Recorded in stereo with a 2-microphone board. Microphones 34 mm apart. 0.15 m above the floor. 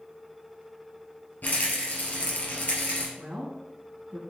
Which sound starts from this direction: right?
A woman speaking, at 3.2 s.